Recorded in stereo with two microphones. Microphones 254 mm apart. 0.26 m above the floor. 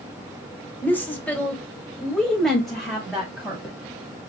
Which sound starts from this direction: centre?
A woman speaking, at 0.8 s.